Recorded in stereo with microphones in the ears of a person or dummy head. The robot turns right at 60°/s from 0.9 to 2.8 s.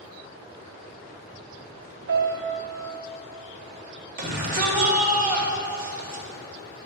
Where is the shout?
55° right (ahead or behind), 3.5 m.